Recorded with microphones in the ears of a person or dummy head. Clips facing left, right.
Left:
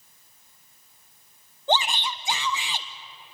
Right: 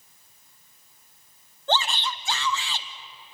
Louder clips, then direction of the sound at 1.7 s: Left 1 dB; 10° left (ahead or behind).